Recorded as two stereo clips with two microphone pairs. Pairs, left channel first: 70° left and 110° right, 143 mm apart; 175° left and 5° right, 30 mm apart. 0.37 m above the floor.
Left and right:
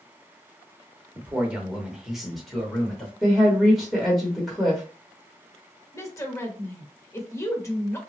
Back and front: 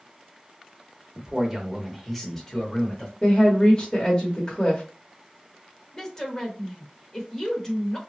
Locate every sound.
1.1 s a man speaking: 45° right, 0.9 m; by 3.1 s 155° left, 1.0 m
3.2 s a woman speaking: 170° left, 0.9 m
5.9 s a woman speaking: 130° left, 0.9 m